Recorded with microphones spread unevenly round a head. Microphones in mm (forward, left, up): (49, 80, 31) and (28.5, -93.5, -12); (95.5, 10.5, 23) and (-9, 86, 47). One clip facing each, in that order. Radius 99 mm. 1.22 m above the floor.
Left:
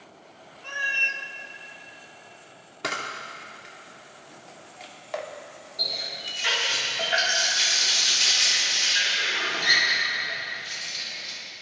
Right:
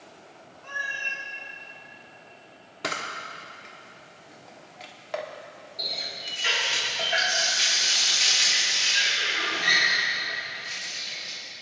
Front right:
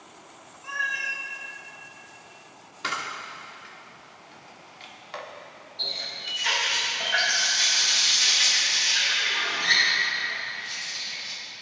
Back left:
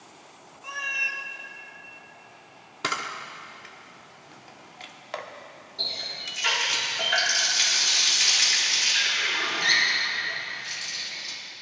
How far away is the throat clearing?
I don't hear throat clearing.